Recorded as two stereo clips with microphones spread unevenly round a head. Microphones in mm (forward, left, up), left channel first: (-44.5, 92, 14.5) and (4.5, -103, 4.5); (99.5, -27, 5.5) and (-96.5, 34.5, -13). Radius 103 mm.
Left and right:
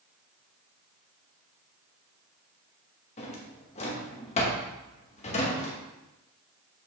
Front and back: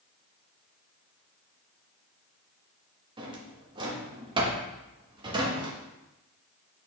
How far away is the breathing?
I don't hear breathing.